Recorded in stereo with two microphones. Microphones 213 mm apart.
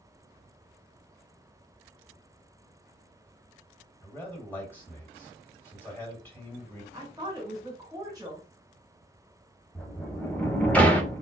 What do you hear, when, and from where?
4.0 s a man speaking: 10° left (ahead or behind), 1.7 m
6.9 s a woman speaking: 15° right (ahead or behind), 1.4 m
9.8 s a sliding door: 5° left (ahead or behind), 0.6 m